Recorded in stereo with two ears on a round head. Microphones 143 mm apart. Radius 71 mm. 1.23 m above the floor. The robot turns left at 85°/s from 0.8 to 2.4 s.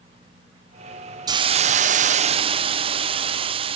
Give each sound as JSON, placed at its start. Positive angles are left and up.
{"t": 1.3, "sound": "a hiss", "azimuth_deg": -35, "distance_m": 0.5}